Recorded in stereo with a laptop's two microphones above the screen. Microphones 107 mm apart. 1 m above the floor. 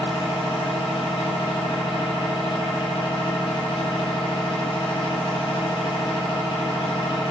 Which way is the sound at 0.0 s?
45° left (ahead or behind).